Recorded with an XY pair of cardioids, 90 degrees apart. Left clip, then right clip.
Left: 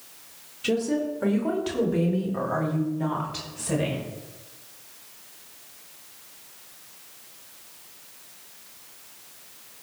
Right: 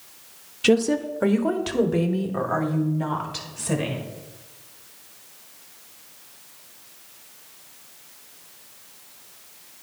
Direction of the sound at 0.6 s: 70° right.